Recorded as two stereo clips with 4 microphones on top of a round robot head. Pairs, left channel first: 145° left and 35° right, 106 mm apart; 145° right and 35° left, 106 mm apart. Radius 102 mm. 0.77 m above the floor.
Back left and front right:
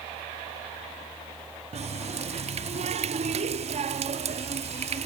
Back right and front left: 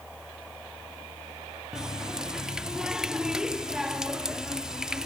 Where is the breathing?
I don't hear breathing.